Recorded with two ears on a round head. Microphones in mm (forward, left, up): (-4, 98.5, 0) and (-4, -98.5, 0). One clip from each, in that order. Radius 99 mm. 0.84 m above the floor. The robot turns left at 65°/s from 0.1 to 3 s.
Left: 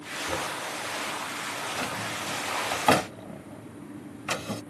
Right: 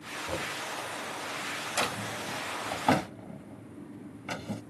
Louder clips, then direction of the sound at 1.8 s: Even; 30° right (ahead or behind).